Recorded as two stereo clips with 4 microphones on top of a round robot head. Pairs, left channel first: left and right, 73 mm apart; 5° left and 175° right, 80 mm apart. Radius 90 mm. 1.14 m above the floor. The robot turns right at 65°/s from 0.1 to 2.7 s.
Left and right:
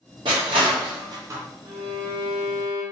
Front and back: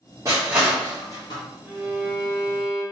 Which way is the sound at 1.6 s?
105° right.